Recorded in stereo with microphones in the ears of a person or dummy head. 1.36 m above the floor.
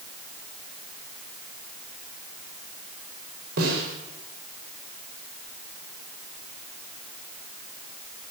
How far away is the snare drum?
About 6 m.